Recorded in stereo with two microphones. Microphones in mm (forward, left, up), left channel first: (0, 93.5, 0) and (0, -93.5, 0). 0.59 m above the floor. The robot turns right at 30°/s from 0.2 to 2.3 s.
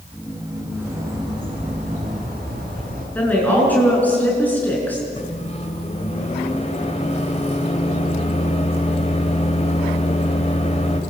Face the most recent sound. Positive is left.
turn(degrees=35)  # may be behind; listen again after turning